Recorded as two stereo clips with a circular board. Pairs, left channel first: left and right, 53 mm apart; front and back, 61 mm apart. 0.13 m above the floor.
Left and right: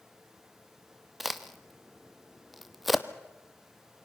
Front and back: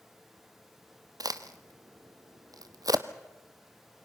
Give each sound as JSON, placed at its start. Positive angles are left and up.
{"t": 1.2, "sound": "a crack", "azimuth_deg": 180, "distance_m": 1.0}